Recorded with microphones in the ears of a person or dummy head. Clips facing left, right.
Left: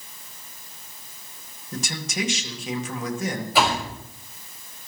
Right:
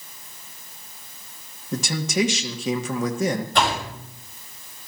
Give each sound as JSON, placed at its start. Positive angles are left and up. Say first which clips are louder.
{"t": 1.7, "sound": "a man speaking", "louder": "right 7 dB", "side_deg": -70, "distance_m": 1.8}
{"t": 3.5, "sound": "a door slam", "louder": "left 5 dB", "side_deg": 5, "distance_m": 5.5}